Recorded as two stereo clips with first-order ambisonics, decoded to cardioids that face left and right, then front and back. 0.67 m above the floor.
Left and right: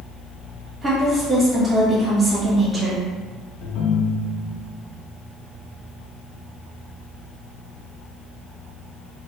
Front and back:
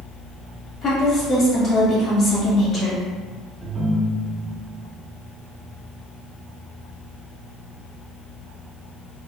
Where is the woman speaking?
20° right, 1.3 m.